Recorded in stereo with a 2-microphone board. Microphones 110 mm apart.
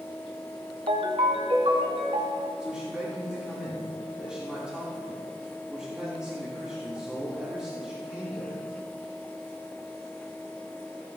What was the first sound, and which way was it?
A ringtone, 60° right (ahead or behind).